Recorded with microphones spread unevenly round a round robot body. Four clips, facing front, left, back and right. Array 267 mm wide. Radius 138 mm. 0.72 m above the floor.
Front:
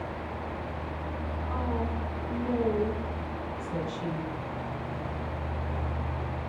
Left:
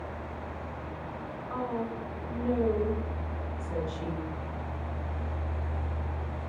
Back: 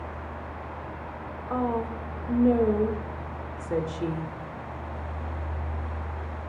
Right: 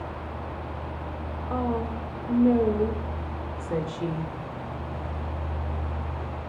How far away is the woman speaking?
About 2 m.